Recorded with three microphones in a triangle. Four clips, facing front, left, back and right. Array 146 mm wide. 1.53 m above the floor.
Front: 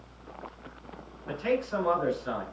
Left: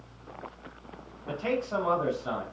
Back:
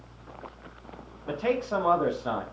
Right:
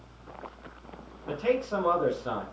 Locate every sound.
1.3 s a man speaking: 175° right, 1.7 m